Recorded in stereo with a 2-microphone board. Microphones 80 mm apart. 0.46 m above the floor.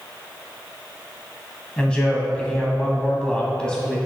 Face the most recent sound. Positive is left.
turn(degrees=10)  # may be behind; listen again after turning